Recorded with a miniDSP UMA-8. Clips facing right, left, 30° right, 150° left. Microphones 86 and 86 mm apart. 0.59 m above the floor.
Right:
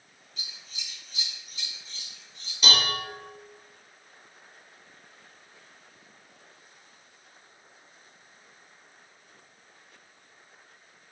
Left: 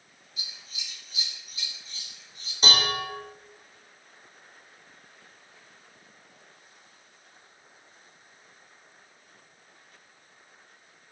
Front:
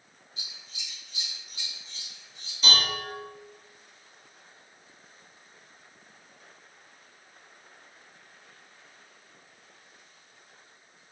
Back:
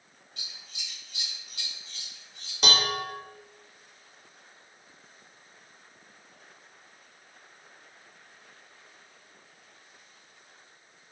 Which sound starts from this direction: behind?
Scissors, at 0.4 s.